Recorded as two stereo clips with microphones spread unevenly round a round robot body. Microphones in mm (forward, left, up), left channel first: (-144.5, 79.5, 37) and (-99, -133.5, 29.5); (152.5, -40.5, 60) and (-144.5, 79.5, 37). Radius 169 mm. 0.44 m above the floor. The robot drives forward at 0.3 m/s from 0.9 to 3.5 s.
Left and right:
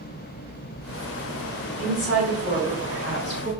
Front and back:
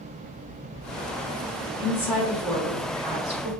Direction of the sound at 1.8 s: 70° left.